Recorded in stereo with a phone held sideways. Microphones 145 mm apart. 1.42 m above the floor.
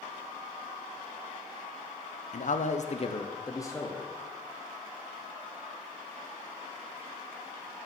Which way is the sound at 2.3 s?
60° left (ahead or behind).